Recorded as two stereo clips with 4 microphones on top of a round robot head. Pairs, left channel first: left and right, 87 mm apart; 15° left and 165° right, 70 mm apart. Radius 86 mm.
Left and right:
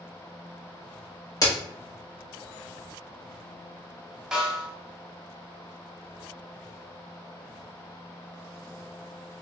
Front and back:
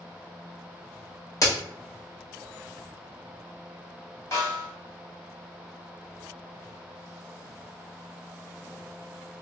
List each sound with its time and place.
1.4 s a crack: 45° left, 1.2 m
4.3 s a snare drum: 10° right, 1.3 m